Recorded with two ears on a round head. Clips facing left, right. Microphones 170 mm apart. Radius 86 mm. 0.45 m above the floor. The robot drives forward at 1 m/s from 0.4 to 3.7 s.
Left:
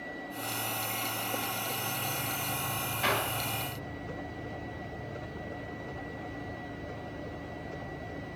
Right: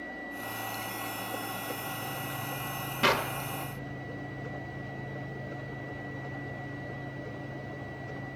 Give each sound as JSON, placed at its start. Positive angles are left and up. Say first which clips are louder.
{"t": 3.0, "sound": "a clap", "louder": "right 4 dB", "side_deg": -55, "distance_m": 1.0}